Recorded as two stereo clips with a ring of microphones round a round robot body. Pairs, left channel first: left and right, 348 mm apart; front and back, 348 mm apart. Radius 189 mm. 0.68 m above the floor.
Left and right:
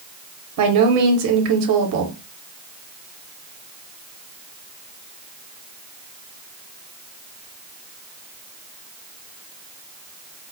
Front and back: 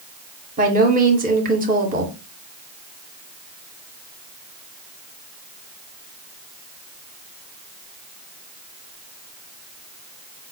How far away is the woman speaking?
About 0.8 m.